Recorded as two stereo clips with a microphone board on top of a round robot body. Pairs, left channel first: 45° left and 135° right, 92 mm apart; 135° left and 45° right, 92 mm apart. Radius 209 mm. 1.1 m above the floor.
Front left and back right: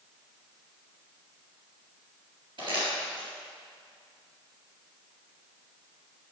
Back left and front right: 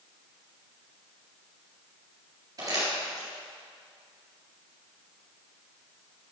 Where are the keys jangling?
I don't hear keys jangling.